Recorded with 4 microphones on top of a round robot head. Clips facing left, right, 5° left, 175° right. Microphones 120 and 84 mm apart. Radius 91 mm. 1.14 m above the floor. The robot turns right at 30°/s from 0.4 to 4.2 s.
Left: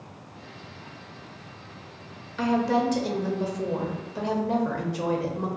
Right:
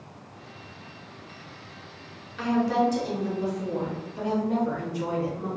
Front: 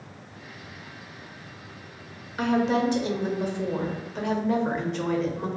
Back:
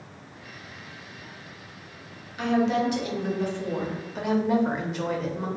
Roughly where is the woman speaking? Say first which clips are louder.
Even, even; ahead left.